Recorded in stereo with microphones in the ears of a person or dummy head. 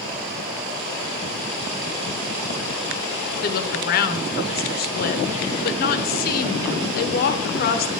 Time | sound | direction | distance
3.4 | a woman speaking | 45° left (ahead or behind) | 1.0 m